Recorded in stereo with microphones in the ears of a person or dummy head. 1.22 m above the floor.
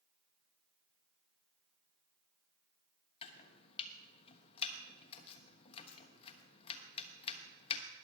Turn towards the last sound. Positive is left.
turn(degrees=35)  # may be behind; listen again after turning